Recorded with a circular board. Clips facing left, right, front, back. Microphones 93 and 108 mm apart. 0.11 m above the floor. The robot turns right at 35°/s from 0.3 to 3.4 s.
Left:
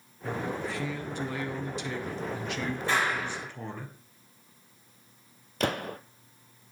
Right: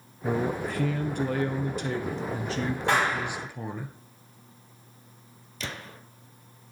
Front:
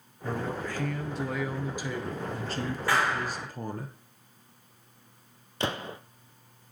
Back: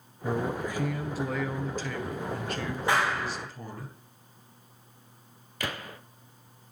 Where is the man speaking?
125° right, 1.7 m; by 3.9 s 15° right, 1.7 m.